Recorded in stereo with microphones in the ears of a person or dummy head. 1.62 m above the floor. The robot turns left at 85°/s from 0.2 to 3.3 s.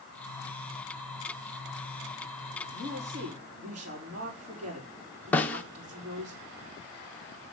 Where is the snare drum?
10° left (ahead or behind), 1.0 m.